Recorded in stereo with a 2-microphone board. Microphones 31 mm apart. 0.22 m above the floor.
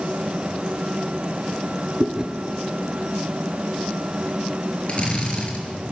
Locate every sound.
2.0 s chewing: 25° right (ahead or behind), 2.5 m
4.9 s a drill: 40° left (ahead or behind), 5 m